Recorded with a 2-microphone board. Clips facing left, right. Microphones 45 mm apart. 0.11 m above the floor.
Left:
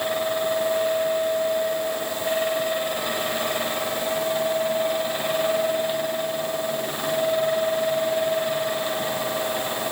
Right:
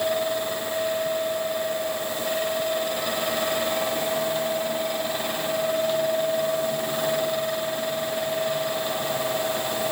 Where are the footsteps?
No footsteps in this recording.